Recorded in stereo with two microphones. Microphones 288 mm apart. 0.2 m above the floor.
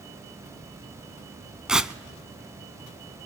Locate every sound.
1.7 s tearing paper: 5° right (ahead or behind), 0.5 m